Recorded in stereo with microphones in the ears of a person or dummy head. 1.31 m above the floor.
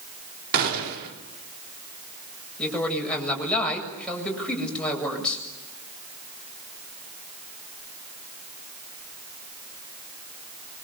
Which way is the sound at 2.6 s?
5° left (ahead or behind).